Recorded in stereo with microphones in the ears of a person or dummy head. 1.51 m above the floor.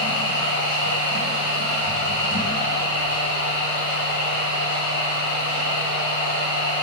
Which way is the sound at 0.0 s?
35° left (ahead or behind).